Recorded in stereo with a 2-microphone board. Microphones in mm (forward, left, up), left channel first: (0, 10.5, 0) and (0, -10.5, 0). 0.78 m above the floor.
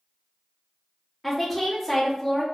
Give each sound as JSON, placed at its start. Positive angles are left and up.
{"t": 1.2, "sound": "a woman speaking", "side_deg": 5, "distance_m": 0.8}